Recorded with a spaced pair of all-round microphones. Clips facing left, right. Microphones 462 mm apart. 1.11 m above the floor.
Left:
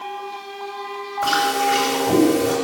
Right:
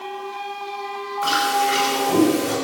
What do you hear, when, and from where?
1.2 s chewing: 60° left (ahead or behind), 7 m